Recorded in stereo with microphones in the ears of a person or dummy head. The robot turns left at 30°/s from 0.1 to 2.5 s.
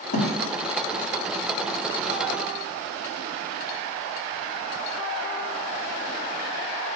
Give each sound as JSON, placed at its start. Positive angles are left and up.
{"t": 0.1, "sound": "a thud", "side_deg": 55, "distance_m": 1.8}